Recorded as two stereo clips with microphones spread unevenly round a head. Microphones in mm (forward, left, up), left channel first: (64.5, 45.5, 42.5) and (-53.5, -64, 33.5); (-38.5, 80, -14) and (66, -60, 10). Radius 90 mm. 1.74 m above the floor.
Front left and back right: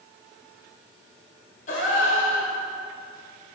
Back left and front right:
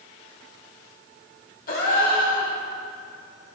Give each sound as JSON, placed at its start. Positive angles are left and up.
{"t": 1.7, "sound": "a gasp", "azimuth_deg": 90, "distance_m": 1.3}